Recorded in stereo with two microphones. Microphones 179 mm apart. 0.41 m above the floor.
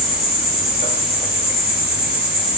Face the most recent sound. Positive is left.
turn(degrees=40)  # may be behind; listen again after turning